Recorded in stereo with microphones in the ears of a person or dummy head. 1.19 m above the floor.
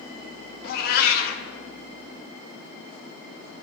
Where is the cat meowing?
55° left (ahead or behind), 0.9 m.